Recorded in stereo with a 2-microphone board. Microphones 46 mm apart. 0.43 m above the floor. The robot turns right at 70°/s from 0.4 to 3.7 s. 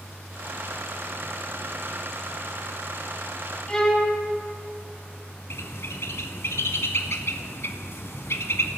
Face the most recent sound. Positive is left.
turn(degrees=70)  # may be behind; listen again after turning